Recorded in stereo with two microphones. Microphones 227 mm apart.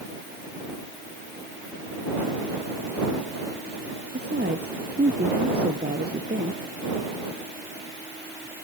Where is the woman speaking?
50° right (ahead or behind).